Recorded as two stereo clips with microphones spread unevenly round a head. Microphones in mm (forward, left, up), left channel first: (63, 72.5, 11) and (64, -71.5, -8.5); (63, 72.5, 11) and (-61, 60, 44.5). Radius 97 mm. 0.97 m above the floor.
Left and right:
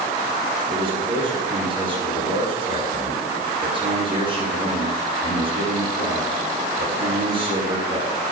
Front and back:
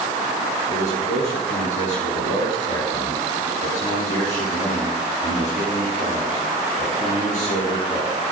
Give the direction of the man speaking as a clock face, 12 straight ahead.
1 o'clock.